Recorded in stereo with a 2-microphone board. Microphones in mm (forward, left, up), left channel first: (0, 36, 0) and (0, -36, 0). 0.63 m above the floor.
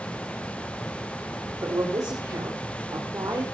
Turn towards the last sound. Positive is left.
turn(degrees=-65)  # may be behind; listen again after turning